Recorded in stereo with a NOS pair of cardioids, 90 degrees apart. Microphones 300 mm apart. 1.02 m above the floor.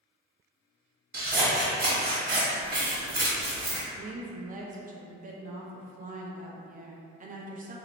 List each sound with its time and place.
1.1 s scissors: 35° right, 1.3 m
4.0 s a woman speaking: 30° right, 0.6 m